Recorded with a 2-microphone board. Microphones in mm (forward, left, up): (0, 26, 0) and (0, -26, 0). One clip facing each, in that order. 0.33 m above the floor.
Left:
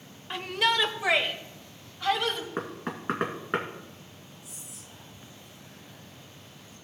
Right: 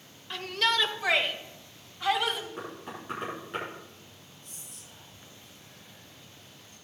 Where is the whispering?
5° left (ahead or behind), 4.5 m.